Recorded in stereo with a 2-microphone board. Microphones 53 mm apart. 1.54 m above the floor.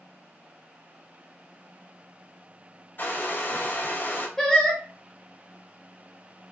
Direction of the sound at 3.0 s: 40° left (ahead or behind).